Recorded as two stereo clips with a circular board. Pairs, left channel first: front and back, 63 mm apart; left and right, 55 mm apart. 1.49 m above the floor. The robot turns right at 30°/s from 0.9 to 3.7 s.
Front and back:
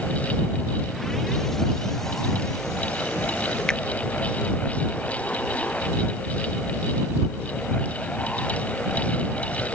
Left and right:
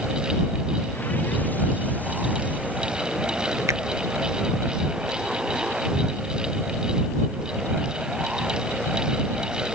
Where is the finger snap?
75° right.